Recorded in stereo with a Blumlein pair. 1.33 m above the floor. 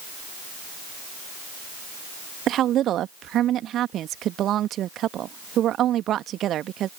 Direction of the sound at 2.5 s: 30° right.